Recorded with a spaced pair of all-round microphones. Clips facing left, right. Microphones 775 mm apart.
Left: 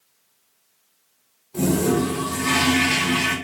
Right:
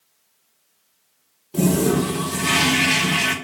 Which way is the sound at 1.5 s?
70° right (ahead or behind).